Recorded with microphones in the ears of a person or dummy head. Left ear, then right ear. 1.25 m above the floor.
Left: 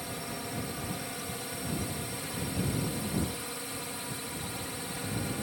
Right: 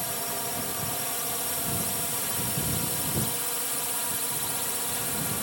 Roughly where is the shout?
No shout in this recording.